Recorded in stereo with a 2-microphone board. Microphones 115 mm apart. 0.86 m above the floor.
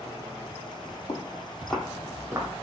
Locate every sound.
1.1 s footsteps: 45° left (ahead or behind), 1.3 m; by 2.5 s 30° right (ahead or behind), 1.3 m